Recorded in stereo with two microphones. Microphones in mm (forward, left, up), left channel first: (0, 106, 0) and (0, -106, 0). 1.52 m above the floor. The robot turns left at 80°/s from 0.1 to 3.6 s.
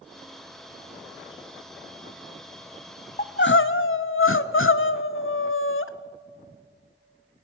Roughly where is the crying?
Behind left.